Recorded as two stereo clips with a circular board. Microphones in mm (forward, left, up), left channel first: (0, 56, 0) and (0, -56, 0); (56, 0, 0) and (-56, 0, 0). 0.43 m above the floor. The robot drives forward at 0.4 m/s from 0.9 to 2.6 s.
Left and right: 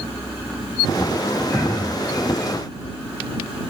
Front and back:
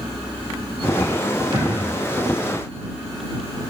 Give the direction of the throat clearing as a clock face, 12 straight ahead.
7 o'clock.